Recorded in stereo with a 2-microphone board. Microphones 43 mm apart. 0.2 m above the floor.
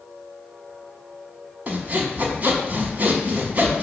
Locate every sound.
1.7 s sawing: 40° right (ahead or behind), 0.8 m